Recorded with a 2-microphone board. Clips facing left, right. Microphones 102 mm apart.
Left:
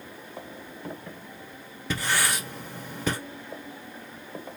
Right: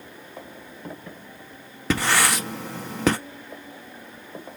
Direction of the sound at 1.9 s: 85° right.